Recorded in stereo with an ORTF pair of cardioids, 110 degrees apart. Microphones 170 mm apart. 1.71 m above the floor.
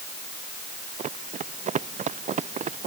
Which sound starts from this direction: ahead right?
Running footsteps, at 1.0 s.